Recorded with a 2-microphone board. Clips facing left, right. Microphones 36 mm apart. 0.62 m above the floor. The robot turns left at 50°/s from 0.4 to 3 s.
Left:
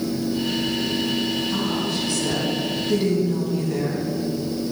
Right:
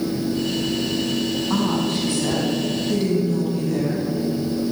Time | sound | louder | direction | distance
1.5 | a woman speaking | right 3 dB | 115° right | 4 m